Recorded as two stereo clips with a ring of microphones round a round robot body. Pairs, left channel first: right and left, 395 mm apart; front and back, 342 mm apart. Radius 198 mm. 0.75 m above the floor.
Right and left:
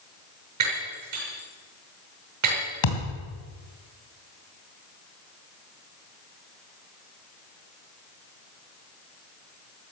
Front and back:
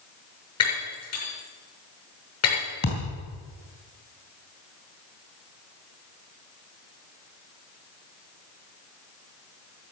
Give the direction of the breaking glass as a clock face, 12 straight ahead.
11 o'clock.